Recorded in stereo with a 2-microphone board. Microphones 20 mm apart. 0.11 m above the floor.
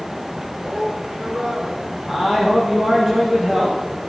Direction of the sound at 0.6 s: 55° right (ahead or behind).